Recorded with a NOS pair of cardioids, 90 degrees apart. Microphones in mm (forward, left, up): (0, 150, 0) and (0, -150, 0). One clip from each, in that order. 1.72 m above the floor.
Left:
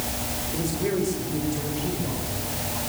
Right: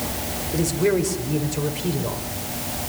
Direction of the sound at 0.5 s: 55° right.